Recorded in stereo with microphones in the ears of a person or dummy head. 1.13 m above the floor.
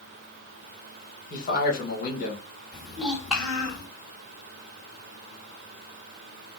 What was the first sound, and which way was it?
A man speaking, 45° left (ahead or behind).